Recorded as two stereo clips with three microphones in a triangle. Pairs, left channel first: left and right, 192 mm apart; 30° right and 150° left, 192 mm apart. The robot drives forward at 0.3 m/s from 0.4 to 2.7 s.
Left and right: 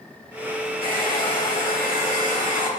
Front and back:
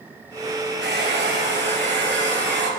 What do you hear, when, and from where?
0.8 s a hair dryer: 125° left, 3.5 m; by 2.7 s 135° left, 3.5 m